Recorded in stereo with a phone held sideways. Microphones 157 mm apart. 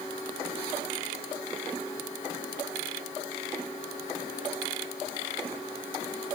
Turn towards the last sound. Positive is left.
No sound to turn to.